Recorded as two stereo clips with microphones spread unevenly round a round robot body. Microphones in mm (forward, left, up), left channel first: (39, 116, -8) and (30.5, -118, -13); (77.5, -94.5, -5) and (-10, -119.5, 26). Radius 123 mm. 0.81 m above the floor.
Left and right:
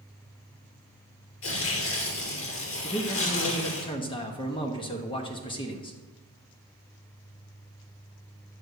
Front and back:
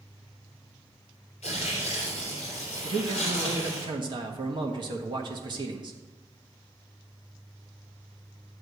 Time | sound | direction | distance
1.4 | tearing paper | 60° left | 3 m
2.8 | a man speaking | 150° left | 1.2 m